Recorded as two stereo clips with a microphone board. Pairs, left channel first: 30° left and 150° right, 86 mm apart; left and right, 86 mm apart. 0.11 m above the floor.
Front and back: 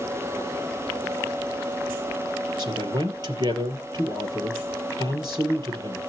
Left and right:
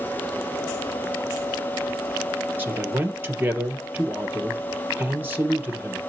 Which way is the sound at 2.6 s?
155° right.